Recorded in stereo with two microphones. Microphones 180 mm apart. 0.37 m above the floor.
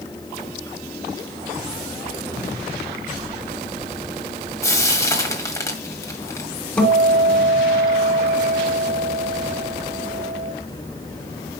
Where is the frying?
15° left (ahead or behind), 1.9 m.